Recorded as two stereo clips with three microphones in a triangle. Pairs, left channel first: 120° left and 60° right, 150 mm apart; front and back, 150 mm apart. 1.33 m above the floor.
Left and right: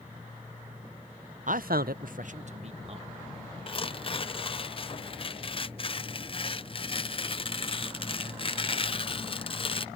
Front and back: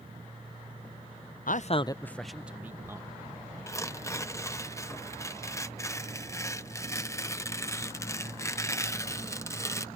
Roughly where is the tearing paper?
Left.